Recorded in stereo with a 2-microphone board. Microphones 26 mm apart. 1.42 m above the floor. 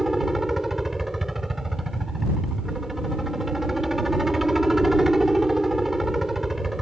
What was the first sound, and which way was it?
A helicopter, 10° right (ahead or behind).